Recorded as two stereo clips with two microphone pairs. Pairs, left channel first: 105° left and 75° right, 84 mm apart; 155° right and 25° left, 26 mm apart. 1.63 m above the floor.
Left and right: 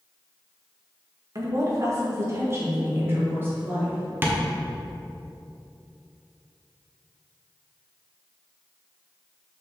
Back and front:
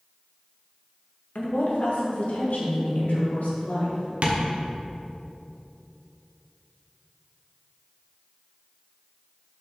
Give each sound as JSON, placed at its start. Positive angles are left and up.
{"t": 1.4, "sound": "a woman speaking", "azimuth_deg": -120, "distance_m": 1.7}
{"t": 4.2, "sound": "tapping", "azimuth_deg": -10, "distance_m": 1.1}